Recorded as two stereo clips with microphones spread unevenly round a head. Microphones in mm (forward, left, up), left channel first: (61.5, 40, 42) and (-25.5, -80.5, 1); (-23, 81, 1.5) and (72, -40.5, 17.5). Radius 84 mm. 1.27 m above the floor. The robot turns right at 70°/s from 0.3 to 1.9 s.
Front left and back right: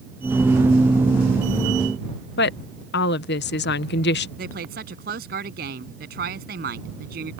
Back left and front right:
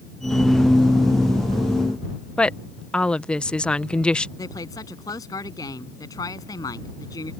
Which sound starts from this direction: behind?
A woman speaking, at 4.4 s.